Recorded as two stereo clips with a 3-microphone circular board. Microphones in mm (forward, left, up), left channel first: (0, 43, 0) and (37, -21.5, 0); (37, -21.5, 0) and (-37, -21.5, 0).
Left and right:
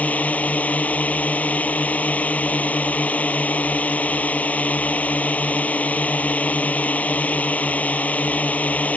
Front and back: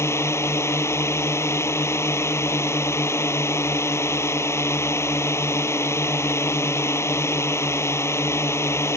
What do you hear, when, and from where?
0.0 s a drone: 50° left